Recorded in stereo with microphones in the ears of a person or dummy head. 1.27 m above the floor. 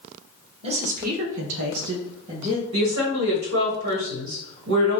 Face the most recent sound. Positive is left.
turn(degrees=-65)  # may be behind; listen again after turning